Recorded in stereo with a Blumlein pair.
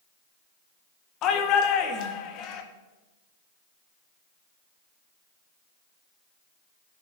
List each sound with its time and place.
1.2 s a shout: 35° left, 1.5 m